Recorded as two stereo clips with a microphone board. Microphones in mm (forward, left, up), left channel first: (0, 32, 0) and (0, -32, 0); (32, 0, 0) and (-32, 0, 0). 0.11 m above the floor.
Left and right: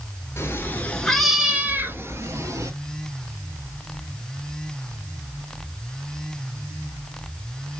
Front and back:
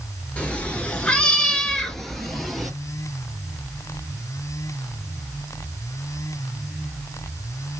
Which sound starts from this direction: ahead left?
A cat meowing, at 0.4 s.